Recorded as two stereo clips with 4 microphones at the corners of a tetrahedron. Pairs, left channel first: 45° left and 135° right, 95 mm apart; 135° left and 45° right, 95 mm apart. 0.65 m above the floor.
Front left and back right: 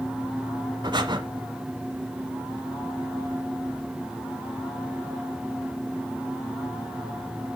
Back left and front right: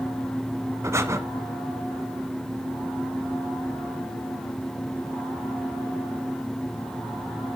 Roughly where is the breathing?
Right.